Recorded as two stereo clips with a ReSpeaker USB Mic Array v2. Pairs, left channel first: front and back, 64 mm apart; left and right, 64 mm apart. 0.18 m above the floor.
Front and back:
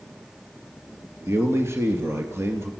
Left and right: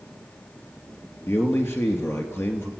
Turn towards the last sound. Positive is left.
turn(degrees=135)